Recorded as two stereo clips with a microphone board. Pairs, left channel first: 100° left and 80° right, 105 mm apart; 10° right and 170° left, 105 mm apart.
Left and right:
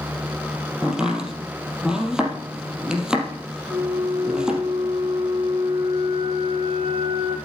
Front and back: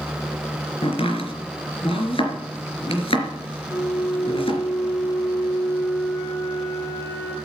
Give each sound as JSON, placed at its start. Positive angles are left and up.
{"t": 0.8, "sound": "chopping", "azimuth_deg": 5, "distance_m": 3.5}
{"t": 3.7, "sound": "a flute", "azimuth_deg": -80, "distance_m": 4.5}